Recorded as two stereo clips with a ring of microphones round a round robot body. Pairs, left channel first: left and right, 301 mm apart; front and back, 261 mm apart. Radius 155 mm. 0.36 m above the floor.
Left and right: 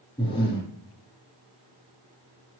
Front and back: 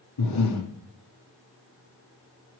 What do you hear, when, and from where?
0.2 s breathing: 15° left, 3 m